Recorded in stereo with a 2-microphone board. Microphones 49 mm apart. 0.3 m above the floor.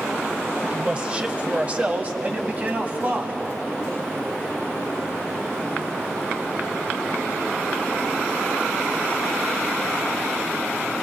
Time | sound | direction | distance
0.7 | a man speaking | 20° right (ahead or behind) | 1.0 m